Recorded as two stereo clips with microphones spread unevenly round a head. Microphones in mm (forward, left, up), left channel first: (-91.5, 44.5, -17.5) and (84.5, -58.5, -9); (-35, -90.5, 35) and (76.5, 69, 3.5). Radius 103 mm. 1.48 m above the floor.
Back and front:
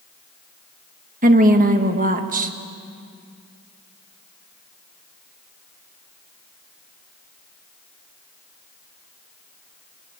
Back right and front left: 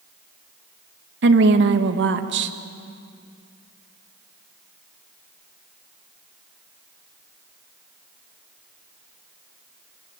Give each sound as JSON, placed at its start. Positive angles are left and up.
{"t": 1.2, "sound": "a woman speaking", "azimuth_deg": 25, "distance_m": 1.7}